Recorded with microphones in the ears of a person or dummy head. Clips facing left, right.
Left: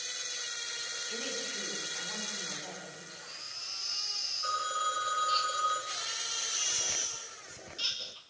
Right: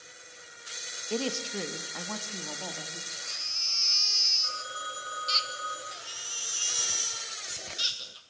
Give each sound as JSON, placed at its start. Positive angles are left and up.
{"t": 1.1, "sound": "a woman speaking", "side_deg": -70, "distance_m": 1.8}
{"t": 3.1, "sound": "a baby crying", "side_deg": -35, "distance_m": 1.4}
{"t": 4.4, "sound": "a phone ringing", "side_deg": 70, "distance_m": 5.5}
{"t": 5.9, "sound": "a baby crying", "side_deg": -20, "distance_m": 2.5}